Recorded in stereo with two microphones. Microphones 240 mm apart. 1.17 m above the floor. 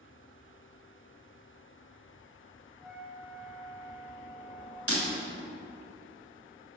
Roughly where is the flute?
Centre.